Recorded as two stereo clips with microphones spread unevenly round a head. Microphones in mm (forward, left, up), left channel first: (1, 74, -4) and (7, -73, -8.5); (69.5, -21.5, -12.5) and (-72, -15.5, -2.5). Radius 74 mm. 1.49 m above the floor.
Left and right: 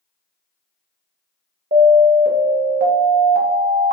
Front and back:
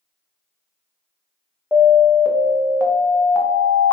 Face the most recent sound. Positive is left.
turn(degrees=-90)